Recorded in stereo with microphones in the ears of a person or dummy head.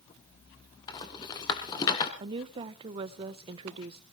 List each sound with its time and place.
0.9 s a rattle: 25° left (ahead or behind), 1.9 m
2.2 s a woman speaking: 30° right (ahead or behind), 0.6 m